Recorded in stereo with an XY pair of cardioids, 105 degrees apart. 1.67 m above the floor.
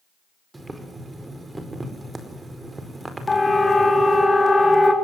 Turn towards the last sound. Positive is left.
turn(degrees=20)